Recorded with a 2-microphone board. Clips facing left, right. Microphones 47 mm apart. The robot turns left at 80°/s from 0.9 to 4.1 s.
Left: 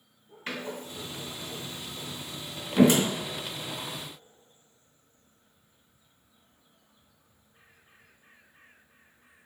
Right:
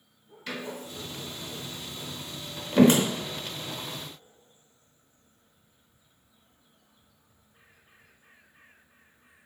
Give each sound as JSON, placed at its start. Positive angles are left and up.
{"t": 0.5, "sound": "a door slam", "side_deg": 35, "distance_m": 0.8}